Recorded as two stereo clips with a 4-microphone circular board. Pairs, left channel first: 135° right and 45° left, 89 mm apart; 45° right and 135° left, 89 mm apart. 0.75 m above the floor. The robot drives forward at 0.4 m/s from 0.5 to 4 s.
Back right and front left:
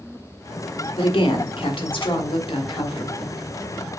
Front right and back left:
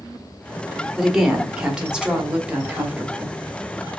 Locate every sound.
1.0 s a woman speaking: 140° right, 1.8 m; by 3.4 s 150° right, 2.5 m